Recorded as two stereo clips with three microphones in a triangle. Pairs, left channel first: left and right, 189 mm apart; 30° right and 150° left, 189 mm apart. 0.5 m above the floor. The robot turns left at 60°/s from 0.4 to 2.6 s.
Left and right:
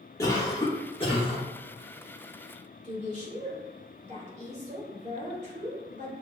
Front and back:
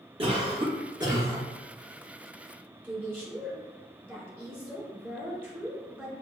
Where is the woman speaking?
135° right, 1.7 m.